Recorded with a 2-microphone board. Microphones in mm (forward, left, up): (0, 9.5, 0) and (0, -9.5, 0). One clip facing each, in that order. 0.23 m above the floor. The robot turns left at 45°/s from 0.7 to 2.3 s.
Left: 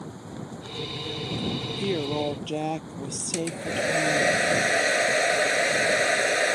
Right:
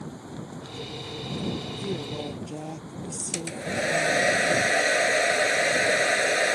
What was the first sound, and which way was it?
A woman speaking, 50° left (ahead or behind).